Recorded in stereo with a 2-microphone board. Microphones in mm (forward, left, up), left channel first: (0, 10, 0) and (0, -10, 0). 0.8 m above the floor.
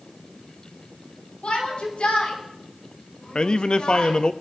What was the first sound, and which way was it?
A shout, 70° left (ahead or behind).